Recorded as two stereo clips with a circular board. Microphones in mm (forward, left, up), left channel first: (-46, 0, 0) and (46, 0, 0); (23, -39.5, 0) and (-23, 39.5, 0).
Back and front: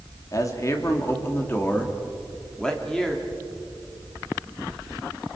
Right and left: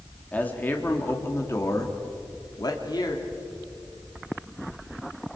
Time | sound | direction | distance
0.3 | a man speaking | 135° right | 3 m